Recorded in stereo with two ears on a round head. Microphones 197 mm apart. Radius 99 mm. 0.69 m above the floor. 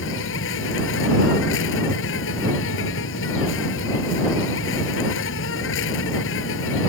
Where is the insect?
65° left (ahead or behind).